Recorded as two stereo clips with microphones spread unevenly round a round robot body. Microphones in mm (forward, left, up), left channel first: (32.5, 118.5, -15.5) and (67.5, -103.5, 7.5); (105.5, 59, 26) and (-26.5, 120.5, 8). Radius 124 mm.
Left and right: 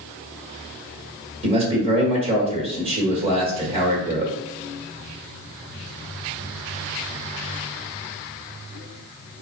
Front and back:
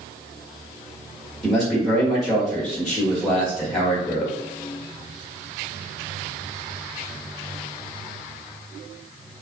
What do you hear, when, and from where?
1.4 s a man speaking: 125° right, 1.5 m